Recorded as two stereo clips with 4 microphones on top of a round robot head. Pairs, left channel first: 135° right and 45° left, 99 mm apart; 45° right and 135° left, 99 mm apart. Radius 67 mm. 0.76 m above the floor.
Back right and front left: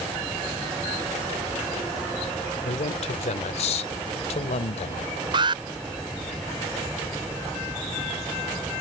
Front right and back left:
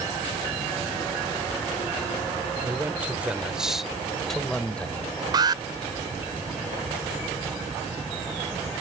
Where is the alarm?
90° left.